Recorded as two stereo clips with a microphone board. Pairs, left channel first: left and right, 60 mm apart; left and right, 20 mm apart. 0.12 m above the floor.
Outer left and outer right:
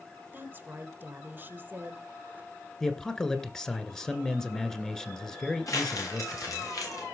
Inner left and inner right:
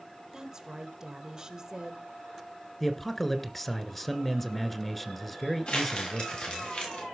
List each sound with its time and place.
0.3 s a woman speaking: 30° right (ahead or behind), 1.8 m
2.8 s a man speaking: 10° left (ahead or behind), 1.8 m
5.7 s crumpling: 70° left (ahead or behind), 6.5 m